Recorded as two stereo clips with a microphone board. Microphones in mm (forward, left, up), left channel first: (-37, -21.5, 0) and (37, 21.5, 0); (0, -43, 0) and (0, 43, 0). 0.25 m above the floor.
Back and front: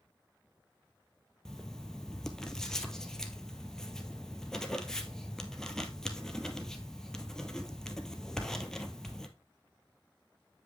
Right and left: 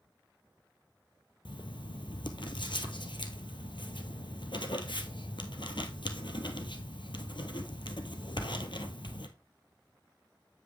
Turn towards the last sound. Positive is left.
turn(degrees=-65)